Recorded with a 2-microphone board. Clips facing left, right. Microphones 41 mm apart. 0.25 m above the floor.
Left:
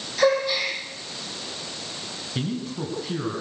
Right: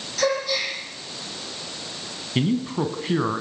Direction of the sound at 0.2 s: 10° left (ahead or behind).